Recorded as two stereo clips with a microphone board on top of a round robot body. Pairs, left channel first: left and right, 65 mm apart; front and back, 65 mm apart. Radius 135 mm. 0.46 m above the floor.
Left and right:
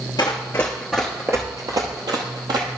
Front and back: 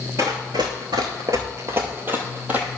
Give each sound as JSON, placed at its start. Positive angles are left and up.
{"t": 0.2, "sound": "running footsteps", "azimuth_deg": 125, "distance_m": 0.7}